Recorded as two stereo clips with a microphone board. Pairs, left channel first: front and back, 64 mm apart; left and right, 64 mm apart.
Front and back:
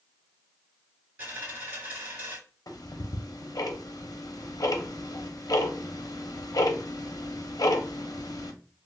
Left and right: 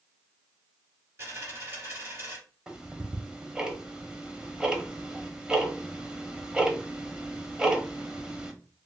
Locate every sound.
1.2 s a dropped coin: 130° right, 1.8 m
2.7 s ticking: 10° right, 0.6 m